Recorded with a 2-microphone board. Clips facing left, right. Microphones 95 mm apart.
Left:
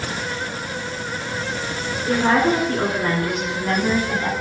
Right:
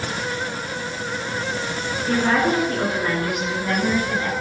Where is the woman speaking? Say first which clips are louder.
Left 2 dB; 40° left (ahead or behind), 2.5 m; by 4.3 s 30° left (ahead or behind), 1.9 m.